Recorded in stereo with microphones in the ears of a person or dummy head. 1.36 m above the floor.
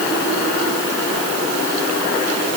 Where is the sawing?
I don't hear sawing.